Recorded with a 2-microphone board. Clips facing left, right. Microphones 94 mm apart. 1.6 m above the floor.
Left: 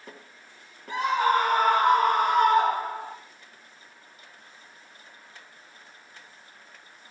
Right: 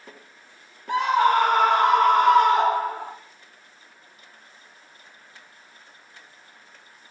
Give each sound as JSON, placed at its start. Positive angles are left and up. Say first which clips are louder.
{"t": 0.9, "sound": "a scream", "louder": "right 4 dB", "side_deg": -70, "distance_m": 4.0}